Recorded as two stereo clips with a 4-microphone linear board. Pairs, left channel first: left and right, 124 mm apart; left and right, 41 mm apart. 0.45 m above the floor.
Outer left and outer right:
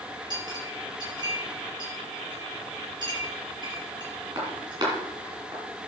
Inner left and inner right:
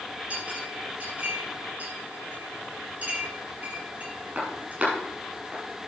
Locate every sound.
0.3 s a clink: 35° right (ahead or behind), 5.5 m